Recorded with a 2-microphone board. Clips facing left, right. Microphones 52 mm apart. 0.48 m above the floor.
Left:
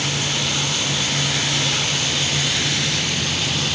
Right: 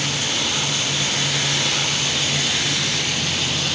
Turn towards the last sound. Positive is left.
No sound to turn to.